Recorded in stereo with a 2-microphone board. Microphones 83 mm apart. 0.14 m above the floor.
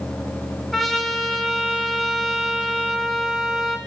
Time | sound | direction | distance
0.7 | a trumpet | centre (ahead or behind) | 0.5 m